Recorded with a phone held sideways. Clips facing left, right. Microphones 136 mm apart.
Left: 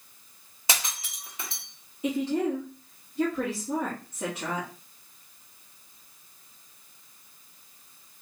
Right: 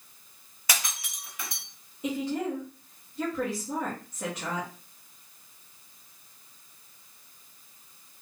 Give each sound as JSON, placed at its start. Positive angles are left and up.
{"t": 0.7, "sound": "breaking glass", "side_deg": 25, "distance_m": 1.2}
{"t": 2.0, "sound": "a woman speaking", "side_deg": 5, "distance_m": 1.6}